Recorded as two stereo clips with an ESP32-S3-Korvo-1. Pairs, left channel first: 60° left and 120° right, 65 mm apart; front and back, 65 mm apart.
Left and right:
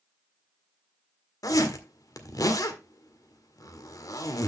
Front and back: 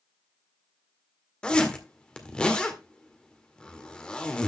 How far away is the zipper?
About 1.8 m.